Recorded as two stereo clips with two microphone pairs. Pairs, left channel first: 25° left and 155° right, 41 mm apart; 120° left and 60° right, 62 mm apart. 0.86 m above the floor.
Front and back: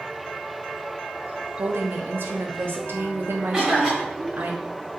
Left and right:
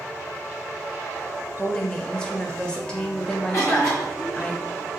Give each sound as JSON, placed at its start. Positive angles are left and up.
{"t": 1.6, "sound": "a woman speaking", "azimuth_deg": -165, "distance_m": 0.6}
{"t": 3.5, "sound": "a cough", "azimuth_deg": 130, "distance_m": 1.7}